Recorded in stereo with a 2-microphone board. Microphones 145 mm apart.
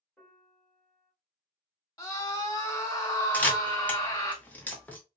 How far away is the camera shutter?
About 0.7 m.